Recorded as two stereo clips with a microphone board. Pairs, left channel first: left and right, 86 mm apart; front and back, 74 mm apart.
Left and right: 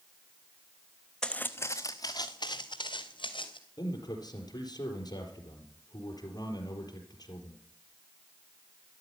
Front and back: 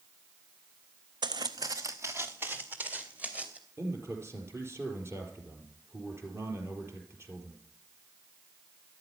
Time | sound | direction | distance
1.2 | footsteps | 175° left | 0.9 m
3.8 | a man speaking | 130° left | 4 m